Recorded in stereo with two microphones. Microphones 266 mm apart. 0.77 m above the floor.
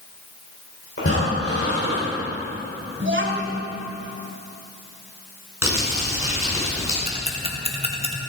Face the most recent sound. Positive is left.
turn(degrees=-20)  # may be behind; listen again after turning